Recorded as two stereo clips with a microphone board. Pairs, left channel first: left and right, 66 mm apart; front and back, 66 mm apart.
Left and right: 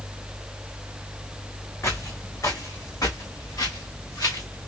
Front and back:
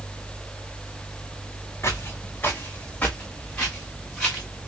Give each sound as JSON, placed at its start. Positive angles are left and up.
{"t": 1.8, "sound": "footsteps", "azimuth_deg": 50, "distance_m": 1.4}